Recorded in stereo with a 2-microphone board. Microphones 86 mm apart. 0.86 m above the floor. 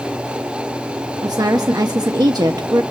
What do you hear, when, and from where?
1.2 s a woman speaking: 50° right (ahead or behind), 0.9 m